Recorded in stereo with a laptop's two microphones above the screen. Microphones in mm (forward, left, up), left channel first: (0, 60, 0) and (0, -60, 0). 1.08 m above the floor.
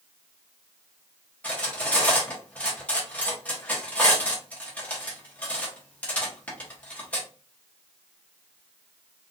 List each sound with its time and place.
1.4 s cutlery clinking: 10° left (ahead or behind), 0.6 m